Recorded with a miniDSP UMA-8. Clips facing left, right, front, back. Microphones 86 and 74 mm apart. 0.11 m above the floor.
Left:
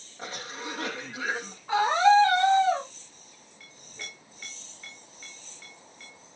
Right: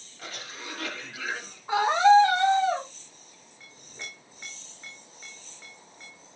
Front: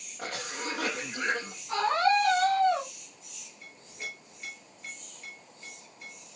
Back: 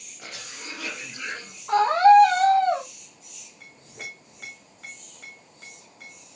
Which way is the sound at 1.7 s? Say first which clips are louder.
Right 2 dB, back 10 dB; 165° right.